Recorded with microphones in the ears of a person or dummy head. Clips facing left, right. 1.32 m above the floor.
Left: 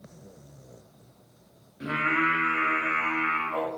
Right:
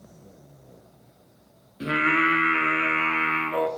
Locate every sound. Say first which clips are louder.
1.8 s singing: right 4 dB; 45° right (ahead or behind), 0.5 m